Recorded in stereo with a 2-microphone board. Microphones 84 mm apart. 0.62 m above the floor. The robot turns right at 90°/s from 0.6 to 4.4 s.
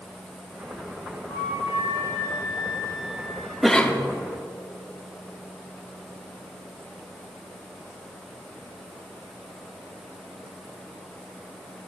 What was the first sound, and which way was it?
A flute, 75° left.